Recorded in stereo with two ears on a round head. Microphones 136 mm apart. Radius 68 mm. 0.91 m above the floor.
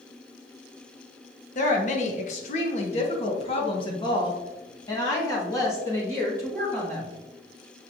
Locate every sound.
1.6 s a woman speaking: 55° left (ahead or behind), 1.4 m; by 7.1 s 15° left (ahead or behind), 3 m